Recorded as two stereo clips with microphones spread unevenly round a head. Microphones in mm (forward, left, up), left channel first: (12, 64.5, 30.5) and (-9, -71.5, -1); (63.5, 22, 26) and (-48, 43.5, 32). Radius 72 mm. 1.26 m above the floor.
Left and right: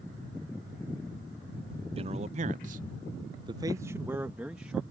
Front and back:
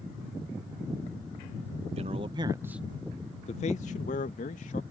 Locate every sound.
2.0 s a man speaking: 145° right; by 4.8 s 15° right